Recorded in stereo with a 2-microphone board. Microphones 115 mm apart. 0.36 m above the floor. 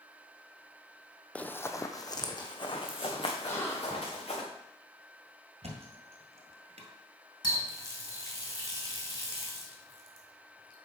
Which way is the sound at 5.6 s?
75° right (ahead or behind).